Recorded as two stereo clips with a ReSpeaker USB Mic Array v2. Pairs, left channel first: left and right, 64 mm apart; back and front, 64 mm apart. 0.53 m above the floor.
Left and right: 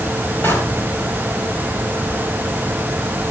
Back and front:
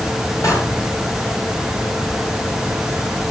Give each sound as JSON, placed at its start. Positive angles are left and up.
{"t": 0.4, "sound": "a door slam", "azimuth_deg": 145, "distance_m": 6.5}